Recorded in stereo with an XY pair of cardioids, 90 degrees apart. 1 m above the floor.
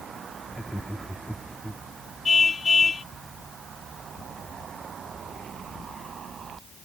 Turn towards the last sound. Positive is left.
turn(degrees=40)